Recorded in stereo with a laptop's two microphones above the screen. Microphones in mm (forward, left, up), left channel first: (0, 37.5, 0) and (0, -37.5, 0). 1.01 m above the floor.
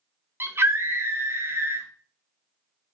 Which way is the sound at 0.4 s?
35° right (ahead or behind).